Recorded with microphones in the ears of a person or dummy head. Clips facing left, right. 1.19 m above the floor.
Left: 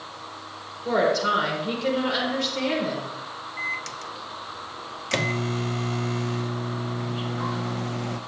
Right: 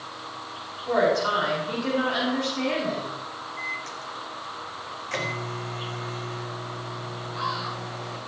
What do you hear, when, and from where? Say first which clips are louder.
0.8 s a woman speaking: even; 70° left (ahead or behind), 4.5 m
3.6 s a microwave: even; 50° left (ahead or behind), 0.8 m